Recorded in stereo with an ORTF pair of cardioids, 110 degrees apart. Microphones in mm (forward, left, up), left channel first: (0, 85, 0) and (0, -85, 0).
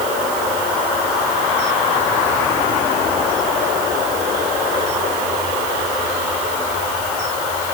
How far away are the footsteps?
I don't hear footsteps.